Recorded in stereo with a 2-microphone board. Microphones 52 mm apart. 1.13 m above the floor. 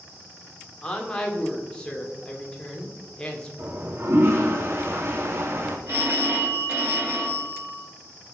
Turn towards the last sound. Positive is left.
turn(degrees=-40)  # may be behind; listen again after turning